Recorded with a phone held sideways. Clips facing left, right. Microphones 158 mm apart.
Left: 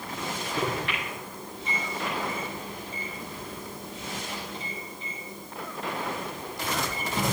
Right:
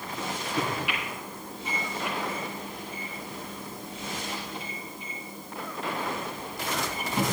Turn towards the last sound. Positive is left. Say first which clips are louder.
# even
turn(degrees=-10)  # may be behind; listen again after turning